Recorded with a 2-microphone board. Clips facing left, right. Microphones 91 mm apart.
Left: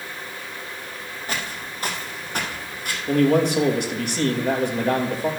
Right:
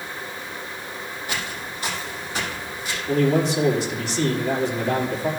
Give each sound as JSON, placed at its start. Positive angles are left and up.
{"t": 1.3, "sound": "footsteps", "side_deg": 40, "distance_m": 3.0}
{"t": 3.1, "sound": "a man speaking", "side_deg": 60, "distance_m": 2.0}